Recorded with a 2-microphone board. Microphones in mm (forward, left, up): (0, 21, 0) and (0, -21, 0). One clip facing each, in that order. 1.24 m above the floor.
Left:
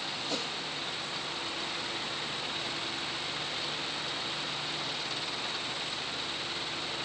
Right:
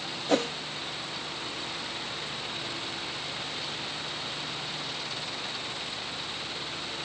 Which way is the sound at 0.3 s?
55° right (ahead or behind).